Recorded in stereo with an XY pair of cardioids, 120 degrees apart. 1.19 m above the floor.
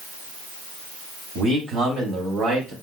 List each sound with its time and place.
1.4 s a man speaking: 60° right, 2.5 m; by 2.7 s 75° right, 3 m